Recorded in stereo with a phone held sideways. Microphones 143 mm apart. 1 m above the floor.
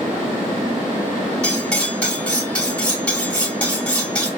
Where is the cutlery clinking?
10° left (ahead or behind), 1.7 m.